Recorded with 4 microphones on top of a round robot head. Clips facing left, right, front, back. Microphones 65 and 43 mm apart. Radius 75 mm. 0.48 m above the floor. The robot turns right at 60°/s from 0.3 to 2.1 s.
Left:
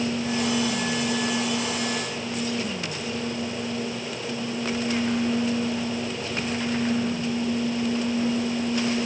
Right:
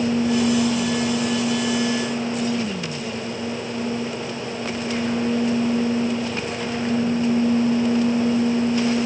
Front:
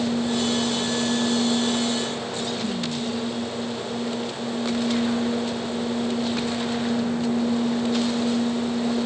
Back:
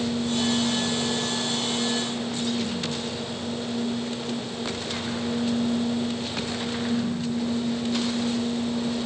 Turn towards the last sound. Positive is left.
No sound to turn to.